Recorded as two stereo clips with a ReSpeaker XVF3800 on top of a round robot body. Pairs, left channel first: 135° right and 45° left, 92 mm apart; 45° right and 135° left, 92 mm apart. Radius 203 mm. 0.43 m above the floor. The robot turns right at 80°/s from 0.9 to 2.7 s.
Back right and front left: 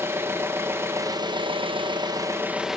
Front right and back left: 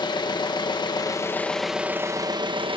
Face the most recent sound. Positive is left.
turn(degrees=130)